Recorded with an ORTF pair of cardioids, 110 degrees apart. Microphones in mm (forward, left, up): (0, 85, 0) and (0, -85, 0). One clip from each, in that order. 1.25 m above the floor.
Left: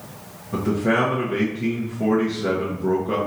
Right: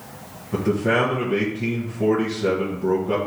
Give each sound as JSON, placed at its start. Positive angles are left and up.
{"t": 0.5, "sound": "a man speaking", "azimuth_deg": -5, "distance_m": 1.0}